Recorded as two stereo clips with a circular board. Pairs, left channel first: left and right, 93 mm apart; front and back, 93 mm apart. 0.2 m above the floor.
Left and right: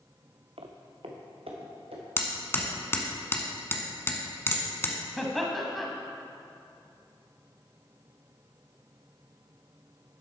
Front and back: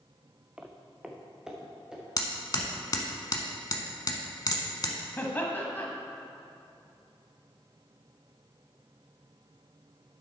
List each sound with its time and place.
0.6 s footsteps: 105° right, 0.9 m; by 2.0 s 95° right, 3 m
2.2 s hammering: 30° left, 1.0 m
5.2 s laughter: 5° left, 1.0 m